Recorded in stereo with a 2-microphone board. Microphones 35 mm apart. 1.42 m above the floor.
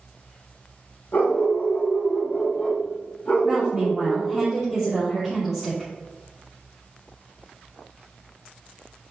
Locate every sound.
1.1 s a dog barking: 55° left (ahead or behind), 3 m; by 4.4 s 45° left (ahead or behind), 4.5 m
3.4 s a woman speaking: 5° right (ahead or behind), 3 m